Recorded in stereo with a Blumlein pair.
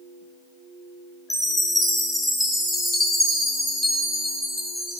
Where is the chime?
5° left, 0.6 m.